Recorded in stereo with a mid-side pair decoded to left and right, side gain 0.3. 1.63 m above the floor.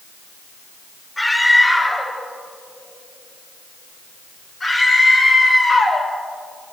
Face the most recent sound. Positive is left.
turn(degrees=60)